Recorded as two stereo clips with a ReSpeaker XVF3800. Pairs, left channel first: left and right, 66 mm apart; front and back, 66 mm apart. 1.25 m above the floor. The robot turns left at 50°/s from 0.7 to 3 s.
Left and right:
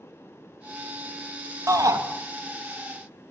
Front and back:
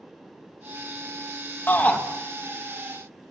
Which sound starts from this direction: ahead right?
A shout, at 1.7 s.